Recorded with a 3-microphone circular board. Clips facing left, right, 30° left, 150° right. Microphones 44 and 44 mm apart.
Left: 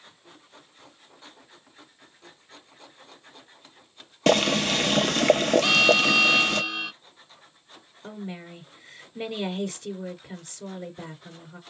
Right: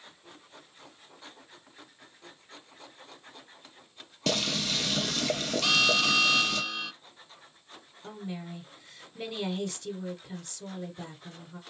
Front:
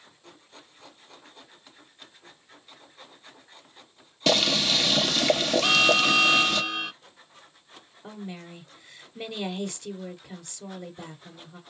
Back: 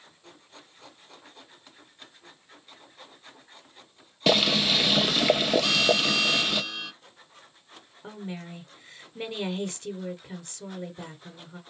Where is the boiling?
125° left, 0.5 m.